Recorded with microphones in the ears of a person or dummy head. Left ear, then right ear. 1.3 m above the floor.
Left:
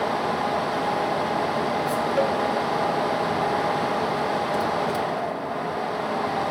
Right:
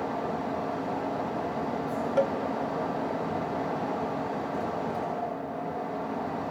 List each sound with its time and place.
0.0 s a fan: 60° left (ahead or behind), 0.9 m
2.2 s a cowbell: 5° left (ahead or behind), 0.7 m